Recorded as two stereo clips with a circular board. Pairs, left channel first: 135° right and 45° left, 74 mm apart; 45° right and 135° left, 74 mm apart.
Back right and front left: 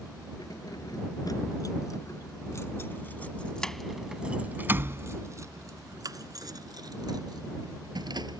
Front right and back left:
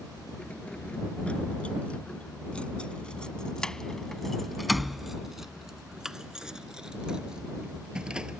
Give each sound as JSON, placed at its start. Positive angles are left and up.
{"t": 0.4, "sound": "keys jangling", "azimuth_deg": -115}